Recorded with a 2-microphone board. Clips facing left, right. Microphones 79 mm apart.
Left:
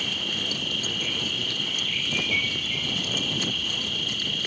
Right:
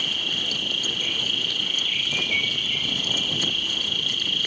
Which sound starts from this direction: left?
An insect, at 0.0 s.